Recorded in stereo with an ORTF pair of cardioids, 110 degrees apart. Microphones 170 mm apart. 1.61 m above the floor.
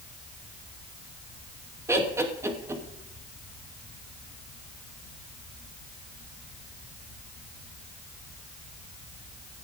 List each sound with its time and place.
1.9 s laughter: 15° right, 3 m